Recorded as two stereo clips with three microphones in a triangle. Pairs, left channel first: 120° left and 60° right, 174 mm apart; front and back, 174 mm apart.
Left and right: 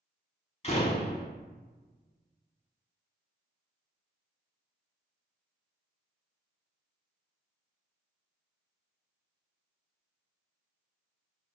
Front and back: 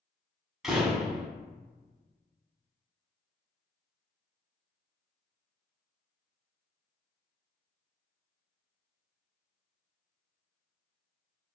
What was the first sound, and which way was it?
A door slam, 95° left.